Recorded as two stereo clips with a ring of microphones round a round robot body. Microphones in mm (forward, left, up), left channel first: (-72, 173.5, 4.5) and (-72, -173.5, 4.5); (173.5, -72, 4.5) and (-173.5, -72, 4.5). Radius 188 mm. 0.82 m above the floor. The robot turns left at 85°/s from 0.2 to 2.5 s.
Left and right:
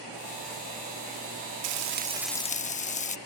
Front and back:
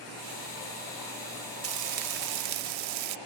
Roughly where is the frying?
Behind right.